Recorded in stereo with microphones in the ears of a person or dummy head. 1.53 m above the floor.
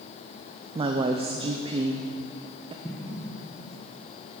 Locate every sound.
0.8 s a woman speaking: 25° right (ahead or behind), 0.5 m
2.8 s an explosion: 15° left (ahead or behind), 1.1 m